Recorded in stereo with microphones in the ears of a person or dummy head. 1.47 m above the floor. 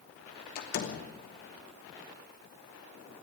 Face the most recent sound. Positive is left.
turn(degrees=55)  # may be behind; listen again after turning